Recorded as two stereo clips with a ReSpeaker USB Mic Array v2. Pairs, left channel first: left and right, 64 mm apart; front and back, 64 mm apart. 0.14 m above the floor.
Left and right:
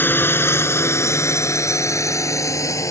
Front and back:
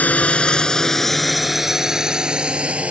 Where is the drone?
55° left; by 2.9 s 110° left.